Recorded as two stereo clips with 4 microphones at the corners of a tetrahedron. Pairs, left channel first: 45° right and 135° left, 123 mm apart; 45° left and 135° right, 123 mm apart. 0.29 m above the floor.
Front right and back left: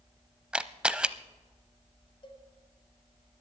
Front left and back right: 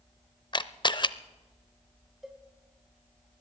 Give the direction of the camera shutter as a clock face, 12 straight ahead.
10 o'clock.